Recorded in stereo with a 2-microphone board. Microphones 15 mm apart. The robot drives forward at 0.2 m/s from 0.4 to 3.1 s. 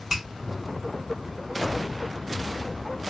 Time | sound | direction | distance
0.1 | a finger snap | 40° right (ahead or behind) | 1.6 m